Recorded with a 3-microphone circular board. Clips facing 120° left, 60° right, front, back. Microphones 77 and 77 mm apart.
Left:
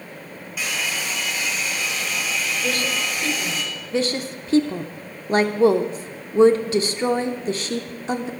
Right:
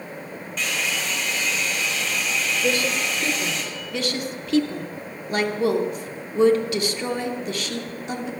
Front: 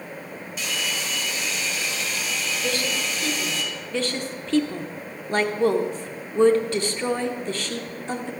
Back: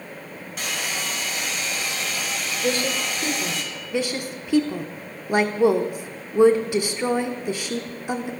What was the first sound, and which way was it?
A hair dryer, 160° right.